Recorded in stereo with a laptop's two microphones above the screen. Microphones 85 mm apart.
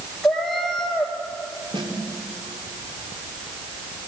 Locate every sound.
0.2 s a cat meowing: 5° left (ahead or behind), 3 m
1.7 s a snare drum: 75° right (ahead or behind), 3 m